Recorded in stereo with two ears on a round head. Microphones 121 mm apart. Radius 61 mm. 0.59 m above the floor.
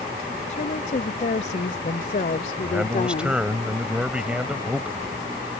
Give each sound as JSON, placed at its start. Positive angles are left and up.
{"t": 0.5, "sound": "a woman speaking", "side_deg": 55}
{"t": 2.6, "sound": "a man speaking", "side_deg": -5}